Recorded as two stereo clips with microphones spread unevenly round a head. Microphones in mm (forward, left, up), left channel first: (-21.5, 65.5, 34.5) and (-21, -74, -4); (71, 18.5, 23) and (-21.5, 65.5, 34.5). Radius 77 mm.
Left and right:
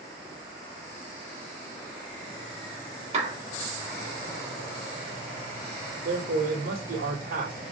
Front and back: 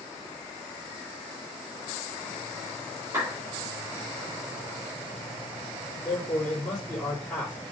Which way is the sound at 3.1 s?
135° right.